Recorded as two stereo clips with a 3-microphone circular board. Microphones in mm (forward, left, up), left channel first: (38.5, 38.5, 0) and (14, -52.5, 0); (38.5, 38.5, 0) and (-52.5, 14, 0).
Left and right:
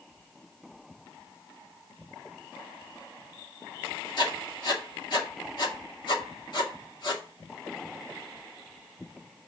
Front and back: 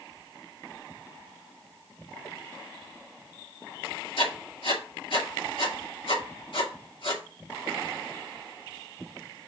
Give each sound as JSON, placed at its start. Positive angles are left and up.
{"t": 4.2, "sound": "writing", "azimuth_deg": 35, "distance_m": 2.0}